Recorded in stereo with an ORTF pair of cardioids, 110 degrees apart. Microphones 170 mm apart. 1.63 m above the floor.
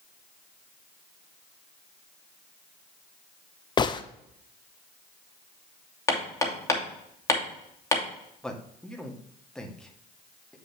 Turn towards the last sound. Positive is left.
turn(degrees=5)